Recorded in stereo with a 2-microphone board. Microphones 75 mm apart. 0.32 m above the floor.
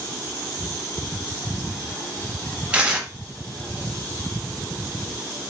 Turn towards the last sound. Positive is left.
turn(degrees=-15)  # may be behind; listen again after turning